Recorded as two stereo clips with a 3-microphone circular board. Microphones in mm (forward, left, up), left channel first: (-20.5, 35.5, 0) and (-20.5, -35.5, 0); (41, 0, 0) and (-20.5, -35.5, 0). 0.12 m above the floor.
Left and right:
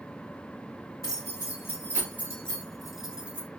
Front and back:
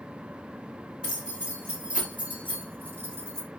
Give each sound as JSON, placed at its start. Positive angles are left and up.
{"t": 1.0, "sound": "keys jangling", "azimuth_deg": 135, "distance_m": 2.0}